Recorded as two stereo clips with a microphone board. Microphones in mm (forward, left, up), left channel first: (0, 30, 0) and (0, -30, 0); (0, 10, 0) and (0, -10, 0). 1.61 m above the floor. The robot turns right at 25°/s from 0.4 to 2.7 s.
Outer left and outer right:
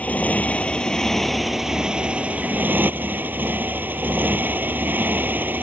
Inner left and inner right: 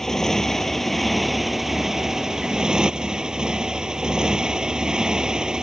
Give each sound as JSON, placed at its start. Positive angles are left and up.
{"t": 0.0, "sound": "a motorcycle", "azimuth_deg": 155}